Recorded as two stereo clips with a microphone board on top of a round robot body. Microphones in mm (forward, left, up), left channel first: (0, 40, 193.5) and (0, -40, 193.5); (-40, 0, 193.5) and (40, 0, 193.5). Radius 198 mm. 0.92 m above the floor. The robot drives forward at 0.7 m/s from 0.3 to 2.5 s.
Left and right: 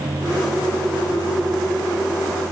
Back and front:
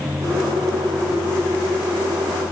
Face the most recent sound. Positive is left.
No sound to turn to.